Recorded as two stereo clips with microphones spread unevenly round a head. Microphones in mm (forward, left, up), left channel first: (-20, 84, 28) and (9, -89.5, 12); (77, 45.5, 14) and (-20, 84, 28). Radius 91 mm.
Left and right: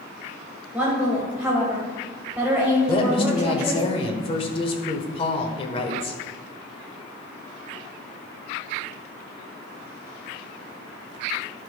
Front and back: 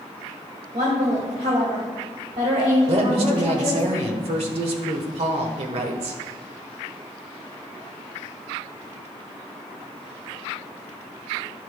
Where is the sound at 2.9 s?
155° left, 1.1 m.